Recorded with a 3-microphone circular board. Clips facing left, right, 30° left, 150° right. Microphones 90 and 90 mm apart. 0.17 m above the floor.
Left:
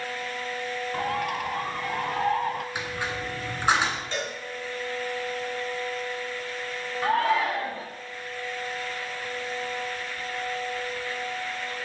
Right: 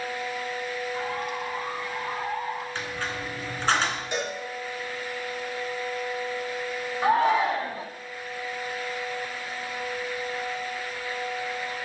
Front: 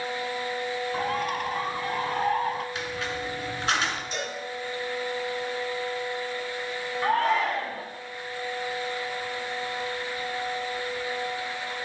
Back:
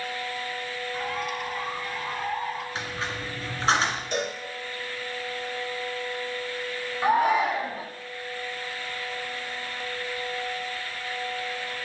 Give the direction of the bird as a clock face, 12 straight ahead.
10 o'clock.